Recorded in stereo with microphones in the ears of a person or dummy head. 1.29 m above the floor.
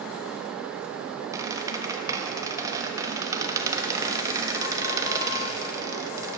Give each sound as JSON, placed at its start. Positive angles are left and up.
{"t": 1.3, "sound": "a squeak", "side_deg": -25, "distance_m": 1.1}